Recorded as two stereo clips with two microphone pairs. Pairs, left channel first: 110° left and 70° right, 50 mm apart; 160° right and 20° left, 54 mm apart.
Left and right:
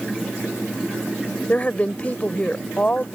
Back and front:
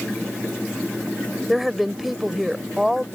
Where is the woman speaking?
100° left.